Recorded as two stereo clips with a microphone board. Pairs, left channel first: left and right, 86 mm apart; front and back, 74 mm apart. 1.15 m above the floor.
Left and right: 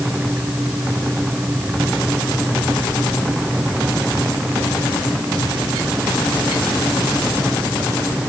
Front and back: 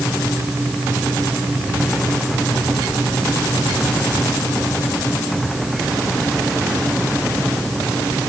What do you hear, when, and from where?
Only background noise.